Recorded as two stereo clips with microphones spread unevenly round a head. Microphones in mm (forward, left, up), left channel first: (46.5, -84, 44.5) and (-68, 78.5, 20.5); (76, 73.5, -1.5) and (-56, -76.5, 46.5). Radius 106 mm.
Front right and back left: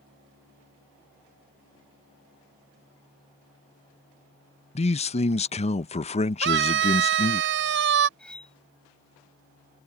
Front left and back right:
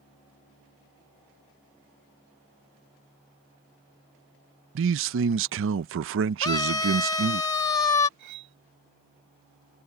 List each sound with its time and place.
4.8 s a man speaking: 115° right
6.4 s a scream: 115° left
8.2 s cutlery clinking: 140° right